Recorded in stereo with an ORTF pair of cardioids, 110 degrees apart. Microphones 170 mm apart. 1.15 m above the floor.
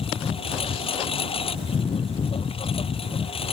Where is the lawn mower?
35° left.